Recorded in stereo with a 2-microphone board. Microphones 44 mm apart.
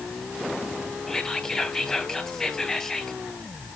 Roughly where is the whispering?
Centre.